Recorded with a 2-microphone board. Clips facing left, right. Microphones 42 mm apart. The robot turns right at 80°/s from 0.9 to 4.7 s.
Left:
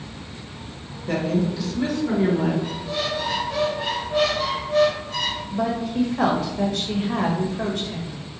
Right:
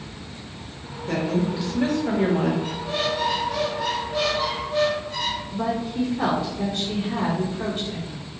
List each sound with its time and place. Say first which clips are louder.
1.1 s a woman speaking: left 1 dB; 165° left, 1.2 m; by 2.5 s 80° right, 1.2 m
2.6 s a squeak: right 1 dB; 60° right, 1.5 m; by 5.4 s 110° left, 1.5 m
5.5 s a woman speaking: left 2 dB; 80° left, 1.0 m